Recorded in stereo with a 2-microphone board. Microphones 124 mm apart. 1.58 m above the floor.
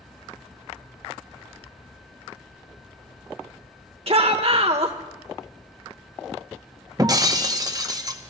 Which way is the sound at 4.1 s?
55° right (ahead or behind).